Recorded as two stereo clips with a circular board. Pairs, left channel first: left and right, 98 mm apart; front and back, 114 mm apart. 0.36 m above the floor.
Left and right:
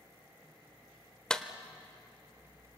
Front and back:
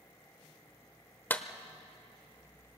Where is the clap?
25° left, 1.1 m.